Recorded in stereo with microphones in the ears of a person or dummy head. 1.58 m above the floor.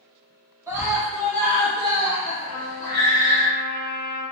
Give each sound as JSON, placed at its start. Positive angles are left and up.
{"t": 0.7, "sound": "a scream", "side_deg": -10, "distance_m": 0.7}
{"t": 2.5, "sound": "a trumpet", "side_deg": 45, "distance_m": 1.3}